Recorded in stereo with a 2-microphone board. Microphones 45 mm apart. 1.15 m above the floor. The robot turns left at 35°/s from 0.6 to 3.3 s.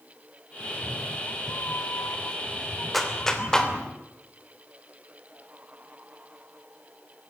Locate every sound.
0.6 s a cat meowing: 135° left, 1.4 m; by 3.9 s 40° left, 1.4 m
2.9 s a clap: centre (ahead or behind), 3 m; by 3.7 s 15° left (ahead or behind), 3 m